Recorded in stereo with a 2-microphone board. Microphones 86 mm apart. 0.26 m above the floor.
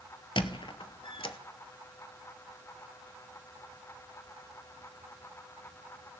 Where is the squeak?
65° left (ahead or behind), 0.7 m.